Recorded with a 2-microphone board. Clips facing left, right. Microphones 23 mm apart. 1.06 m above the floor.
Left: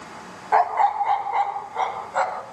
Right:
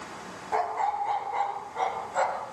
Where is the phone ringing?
I don't hear a phone ringing.